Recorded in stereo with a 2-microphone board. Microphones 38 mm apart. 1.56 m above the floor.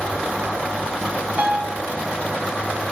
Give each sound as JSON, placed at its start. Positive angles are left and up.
{"t": 1.4, "sound": "a piano", "side_deg": -45, "distance_m": 2.5}